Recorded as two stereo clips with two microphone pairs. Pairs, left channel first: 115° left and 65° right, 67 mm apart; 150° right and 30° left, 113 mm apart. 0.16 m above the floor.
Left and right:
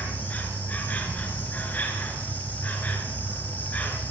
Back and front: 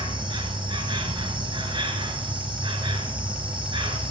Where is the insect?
55° left, 2.5 m.